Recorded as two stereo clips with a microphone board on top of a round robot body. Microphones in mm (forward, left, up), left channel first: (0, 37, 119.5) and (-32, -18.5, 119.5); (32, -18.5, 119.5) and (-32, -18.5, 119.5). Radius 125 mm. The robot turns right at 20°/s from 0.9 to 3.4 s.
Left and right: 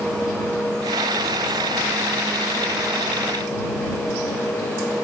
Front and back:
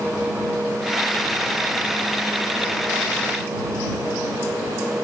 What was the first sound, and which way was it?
Only background noise.